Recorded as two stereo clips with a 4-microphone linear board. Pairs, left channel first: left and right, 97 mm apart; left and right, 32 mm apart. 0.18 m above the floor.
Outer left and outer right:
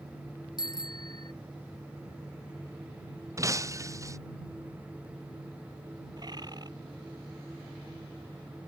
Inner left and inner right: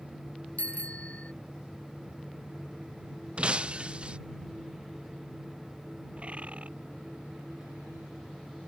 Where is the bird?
45° right (ahead or behind).